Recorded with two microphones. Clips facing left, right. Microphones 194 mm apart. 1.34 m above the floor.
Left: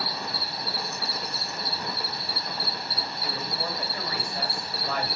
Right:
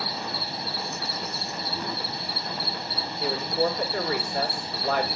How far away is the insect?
About 0.8 m.